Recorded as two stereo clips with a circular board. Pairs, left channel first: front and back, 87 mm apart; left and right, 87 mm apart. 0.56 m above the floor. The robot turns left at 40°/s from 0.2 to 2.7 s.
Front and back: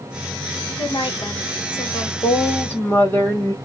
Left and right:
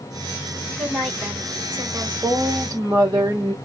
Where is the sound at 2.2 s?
50° right, 1.8 m; by 3.5 s 70° right, 1.8 m.